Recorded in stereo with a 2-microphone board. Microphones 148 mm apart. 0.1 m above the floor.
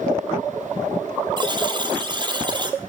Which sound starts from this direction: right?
A buzzer, at 1.4 s.